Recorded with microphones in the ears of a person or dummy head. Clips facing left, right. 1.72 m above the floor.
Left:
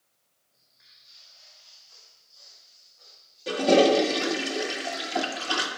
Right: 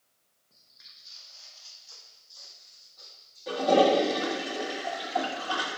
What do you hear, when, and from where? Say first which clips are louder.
0.5 s footsteps: right 3 dB; 60° right (ahead or behind), 3.5 m; by 4.5 s 75° right (ahead or behind), 7 m
3.5 s a toilet flushing: left 3 dB; 35° left (ahead or behind), 2.5 m